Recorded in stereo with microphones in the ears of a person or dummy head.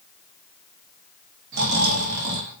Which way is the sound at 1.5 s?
60° right (ahead or behind).